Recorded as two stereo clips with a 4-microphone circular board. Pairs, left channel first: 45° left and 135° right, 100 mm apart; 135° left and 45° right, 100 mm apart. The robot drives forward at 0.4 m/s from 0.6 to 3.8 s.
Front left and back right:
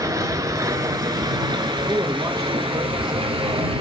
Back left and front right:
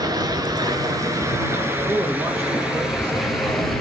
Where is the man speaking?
90° right, 2 m; by 3.3 s 110° right, 2 m.